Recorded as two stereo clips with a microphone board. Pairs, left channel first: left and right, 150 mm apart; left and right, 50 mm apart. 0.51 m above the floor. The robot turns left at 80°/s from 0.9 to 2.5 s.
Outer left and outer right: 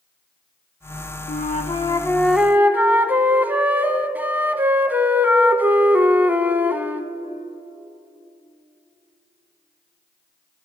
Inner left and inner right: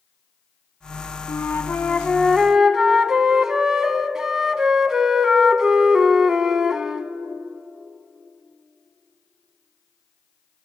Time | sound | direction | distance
1.3 | a flute | 85° left | 0.6 m